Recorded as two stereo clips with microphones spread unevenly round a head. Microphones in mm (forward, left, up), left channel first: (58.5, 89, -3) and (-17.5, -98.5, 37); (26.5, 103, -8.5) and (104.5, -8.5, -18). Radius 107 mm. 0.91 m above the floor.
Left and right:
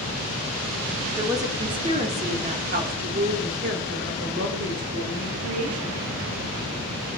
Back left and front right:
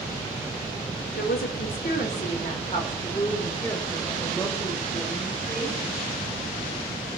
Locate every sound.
1.1 s a woman speaking: 165° left, 3 m; by 6.0 s 135° right, 5 m